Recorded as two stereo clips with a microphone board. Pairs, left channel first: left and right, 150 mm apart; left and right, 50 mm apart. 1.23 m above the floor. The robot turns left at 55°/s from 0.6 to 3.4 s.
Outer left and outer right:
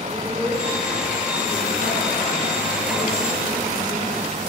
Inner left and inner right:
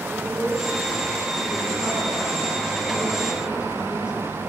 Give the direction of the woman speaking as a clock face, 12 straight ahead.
12 o'clock.